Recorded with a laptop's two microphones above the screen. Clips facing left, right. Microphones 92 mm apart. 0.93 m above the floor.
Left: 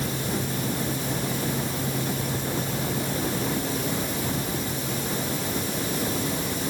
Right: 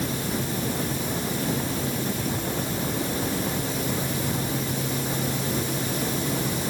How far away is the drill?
I don't hear a drill.